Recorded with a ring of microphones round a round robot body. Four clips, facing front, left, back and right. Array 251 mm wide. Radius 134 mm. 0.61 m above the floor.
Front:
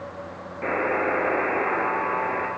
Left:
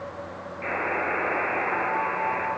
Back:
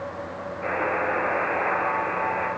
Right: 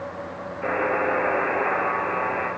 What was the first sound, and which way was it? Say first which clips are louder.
A buzzer: right 5 dB, front 2 dB; 20° right.